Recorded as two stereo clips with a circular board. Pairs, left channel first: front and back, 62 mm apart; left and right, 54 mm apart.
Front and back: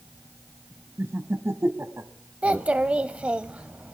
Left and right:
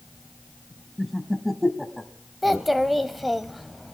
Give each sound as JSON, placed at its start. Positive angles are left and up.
{"t": 1.0, "sound": "laughter", "azimuth_deg": 180, "distance_m": 1.2}
{"t": 2.4, "sound": "a child speaking", "azimuth_deg": -175, "distance_m": 0.5}